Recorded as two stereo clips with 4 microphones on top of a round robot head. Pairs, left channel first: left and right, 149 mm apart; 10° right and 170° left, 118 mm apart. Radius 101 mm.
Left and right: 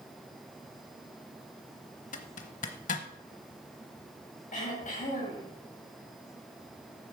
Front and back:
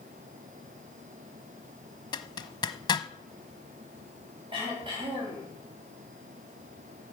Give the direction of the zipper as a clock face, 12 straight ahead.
11 o'clock.